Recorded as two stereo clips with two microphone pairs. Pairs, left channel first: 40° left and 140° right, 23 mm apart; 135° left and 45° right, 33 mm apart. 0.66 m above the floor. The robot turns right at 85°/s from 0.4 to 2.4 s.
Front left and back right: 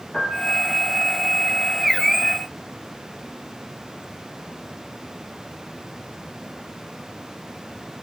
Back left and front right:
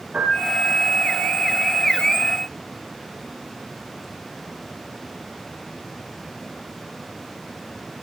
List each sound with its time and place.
0.1 s a piano: 5° right, 3 m; by 0.8 s 25° left, 3 m